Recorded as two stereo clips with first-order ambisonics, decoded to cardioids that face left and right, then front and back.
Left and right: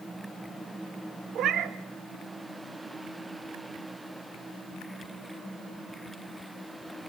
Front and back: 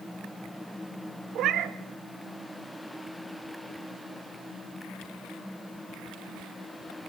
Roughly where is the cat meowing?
Behind right.